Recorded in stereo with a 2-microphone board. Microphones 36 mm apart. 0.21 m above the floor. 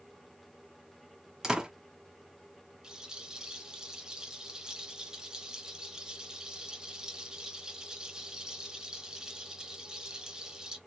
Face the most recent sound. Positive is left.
turn(degrees=-15)  # may be behind; listen again after turning